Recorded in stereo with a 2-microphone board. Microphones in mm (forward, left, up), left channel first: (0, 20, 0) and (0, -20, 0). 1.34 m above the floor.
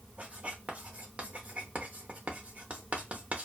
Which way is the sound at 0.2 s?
35° right (ahead or behind).